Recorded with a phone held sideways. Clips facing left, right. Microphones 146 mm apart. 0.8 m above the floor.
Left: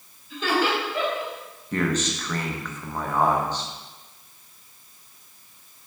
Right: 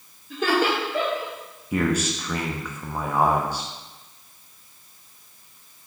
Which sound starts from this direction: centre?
A man speaking, at 1.7 s.